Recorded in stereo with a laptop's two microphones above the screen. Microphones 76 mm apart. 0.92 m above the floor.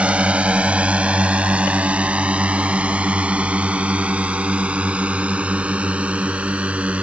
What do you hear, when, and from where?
0.0 s a drone: 15° right (ahead or behind); by 7.0 s 20° right (ahead or behind)